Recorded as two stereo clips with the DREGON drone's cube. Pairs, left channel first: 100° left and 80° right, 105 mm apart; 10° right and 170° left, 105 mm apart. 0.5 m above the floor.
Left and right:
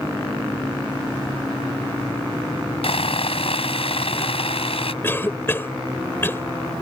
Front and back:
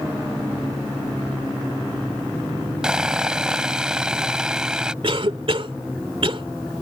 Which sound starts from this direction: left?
Sawing, at 2.8 s.